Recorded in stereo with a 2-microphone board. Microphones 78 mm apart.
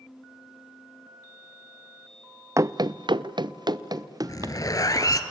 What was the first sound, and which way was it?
Running footsteps, 40° right (ahead or behind).